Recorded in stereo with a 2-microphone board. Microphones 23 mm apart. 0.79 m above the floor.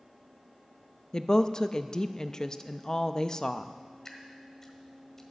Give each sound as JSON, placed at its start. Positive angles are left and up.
{"t": 1.1, "sound": "a woman speaking", "side_deg": 35, "distance_m": 0.6}
{"t": 4.0, "sound": "dripping", "side_deg": 15, "distance_m": 1.5}